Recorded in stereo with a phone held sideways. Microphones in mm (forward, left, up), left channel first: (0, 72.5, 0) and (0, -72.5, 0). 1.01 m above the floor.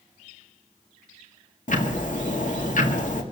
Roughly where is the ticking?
Left.